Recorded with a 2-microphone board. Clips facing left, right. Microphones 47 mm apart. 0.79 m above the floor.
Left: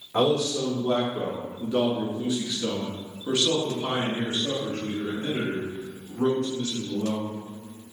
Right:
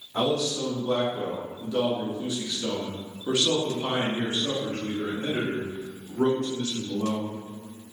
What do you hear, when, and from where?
0.1 s a man speaking: 50° left (ahead or behind), 2.0 m; by 7.3 s 70° right (ahead or behind), 2.5 m